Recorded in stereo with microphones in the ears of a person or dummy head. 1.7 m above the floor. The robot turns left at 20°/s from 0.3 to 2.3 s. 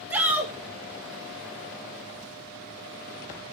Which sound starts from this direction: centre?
A shout, at 0.1 s.